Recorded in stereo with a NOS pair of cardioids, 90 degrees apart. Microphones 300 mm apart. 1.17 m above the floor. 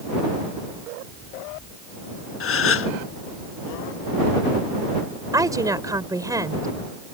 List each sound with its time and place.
2.4 s a gasp: 45° left
5.3 s a woman speaking: 10° right